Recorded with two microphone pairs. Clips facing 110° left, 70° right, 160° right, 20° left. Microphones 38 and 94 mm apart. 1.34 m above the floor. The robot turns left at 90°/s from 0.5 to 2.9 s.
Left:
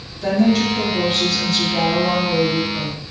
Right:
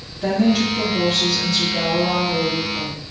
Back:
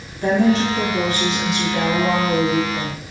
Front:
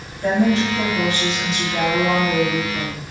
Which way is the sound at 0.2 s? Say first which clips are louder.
Left 1 dB, back 1 dB; 145° right.